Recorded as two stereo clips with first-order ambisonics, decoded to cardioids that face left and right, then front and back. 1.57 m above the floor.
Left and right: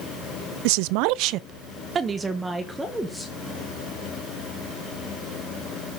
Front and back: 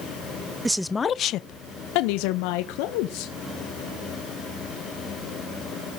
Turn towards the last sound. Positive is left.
turn(degrees=0)